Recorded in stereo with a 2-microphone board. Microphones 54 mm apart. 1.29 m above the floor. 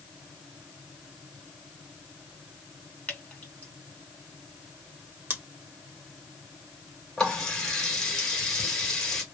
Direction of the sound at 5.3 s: 40° right (ahead or behind).